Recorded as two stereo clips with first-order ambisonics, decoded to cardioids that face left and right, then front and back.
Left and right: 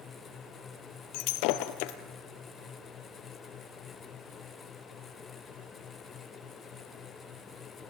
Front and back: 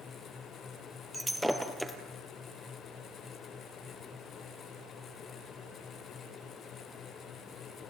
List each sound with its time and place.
1.1 s breaking glass: 90° left, 1.5 m